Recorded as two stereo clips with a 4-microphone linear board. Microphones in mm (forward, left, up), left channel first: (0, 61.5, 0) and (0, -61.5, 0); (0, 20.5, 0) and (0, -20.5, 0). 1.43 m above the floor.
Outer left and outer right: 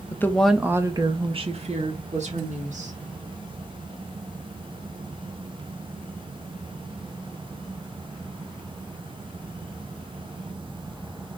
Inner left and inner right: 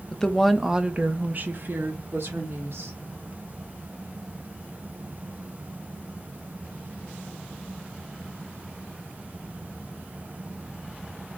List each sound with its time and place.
0.1 s a woman speaking: 20° left (ahead or behind), 0.7 m; by 3.0 s 70° right (ahead or behind), 1.8 m